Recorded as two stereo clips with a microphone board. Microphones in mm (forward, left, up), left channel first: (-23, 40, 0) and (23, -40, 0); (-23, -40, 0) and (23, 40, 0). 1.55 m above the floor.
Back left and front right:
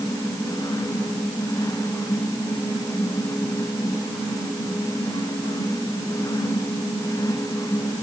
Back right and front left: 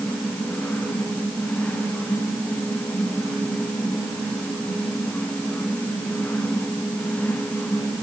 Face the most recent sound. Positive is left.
No sound to turn to.